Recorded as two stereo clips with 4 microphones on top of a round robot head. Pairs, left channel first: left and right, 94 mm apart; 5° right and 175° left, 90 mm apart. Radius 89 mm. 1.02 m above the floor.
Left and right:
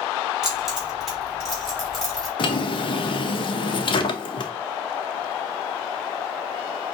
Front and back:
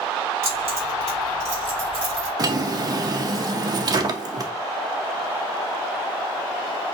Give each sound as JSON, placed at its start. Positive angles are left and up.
{"t": 0.4, "sound": "keys jangling", "azimuth_deg": -175, "distance_m": 2.0}
{"t": 2.4, "sound": "a drawer", "azimuth_deg": 125, "distance_m": 0.5}